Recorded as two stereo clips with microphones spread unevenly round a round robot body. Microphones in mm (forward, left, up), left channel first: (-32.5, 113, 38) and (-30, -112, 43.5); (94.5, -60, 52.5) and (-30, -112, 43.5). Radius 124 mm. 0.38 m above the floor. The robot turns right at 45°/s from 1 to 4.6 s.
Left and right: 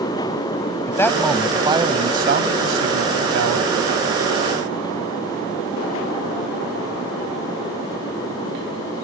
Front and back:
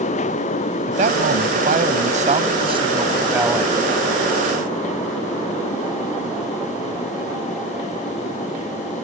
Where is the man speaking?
170° left; by 3.8 s 65° right.